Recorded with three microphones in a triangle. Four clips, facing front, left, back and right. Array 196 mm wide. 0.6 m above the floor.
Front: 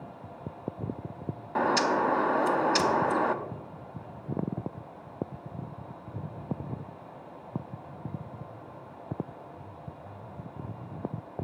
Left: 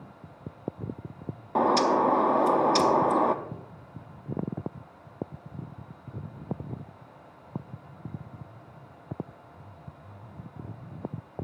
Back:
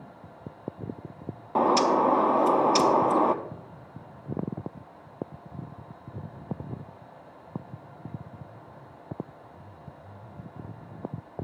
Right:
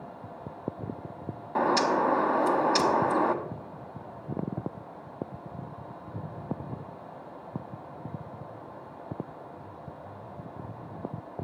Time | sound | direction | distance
1.6 | a bird | 155° left | 0.7 m